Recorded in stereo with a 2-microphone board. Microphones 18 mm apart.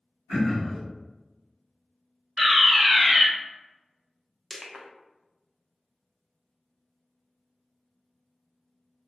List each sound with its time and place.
0.3 s throat clearing: 50° right (ahead or behind), 1.5 m
2.4 s a fire alarm: 25° right (ahead or behind), 1.8 m
4.5 s crushing: 15° right (ahead or behind), 0.5 m